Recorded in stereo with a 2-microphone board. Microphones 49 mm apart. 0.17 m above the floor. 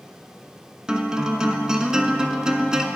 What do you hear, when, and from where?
0.9 s a guitar: 15° right (ahead or behind), 0.5 m